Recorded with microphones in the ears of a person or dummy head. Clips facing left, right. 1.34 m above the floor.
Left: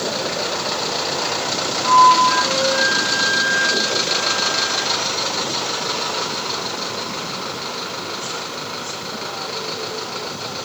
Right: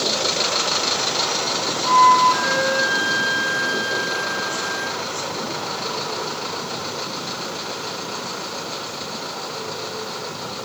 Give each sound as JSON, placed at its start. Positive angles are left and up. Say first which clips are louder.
{"t": 1.8, "sound": "a flute", "louder": "left 2 dB", "side_deg": -20, "distance_m": 1.6}